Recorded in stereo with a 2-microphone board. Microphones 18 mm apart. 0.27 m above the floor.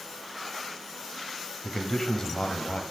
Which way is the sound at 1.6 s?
25° left (ahead or behind).